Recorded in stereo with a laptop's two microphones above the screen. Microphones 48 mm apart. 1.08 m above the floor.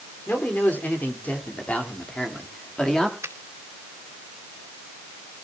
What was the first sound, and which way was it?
A man speaking, 45° left (ahead or behind).